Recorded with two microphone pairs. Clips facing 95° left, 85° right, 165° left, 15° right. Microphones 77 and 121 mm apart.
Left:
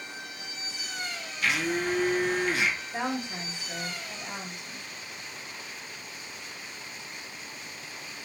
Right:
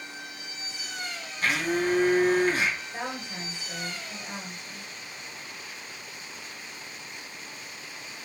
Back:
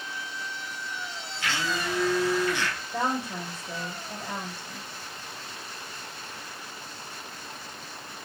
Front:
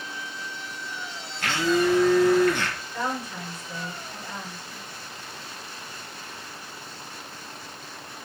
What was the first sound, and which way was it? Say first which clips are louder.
A blender: right 2 dB, front 8 dB; 40° right.